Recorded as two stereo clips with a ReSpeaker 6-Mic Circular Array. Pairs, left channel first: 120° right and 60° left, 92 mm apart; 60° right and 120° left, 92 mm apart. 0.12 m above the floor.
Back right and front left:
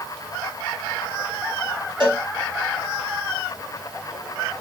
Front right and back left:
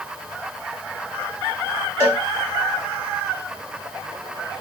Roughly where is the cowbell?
Ahead left.